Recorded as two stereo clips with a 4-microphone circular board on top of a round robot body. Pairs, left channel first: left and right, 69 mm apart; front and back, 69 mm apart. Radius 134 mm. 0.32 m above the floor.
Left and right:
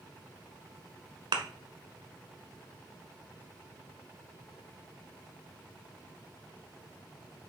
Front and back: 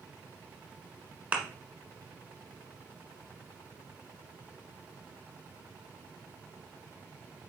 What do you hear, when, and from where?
1.3 s a thud: 110° right, 1.3 m